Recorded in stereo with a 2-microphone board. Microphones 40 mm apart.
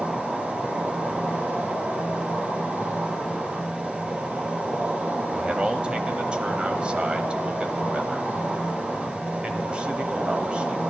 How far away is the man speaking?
About 1.3 m.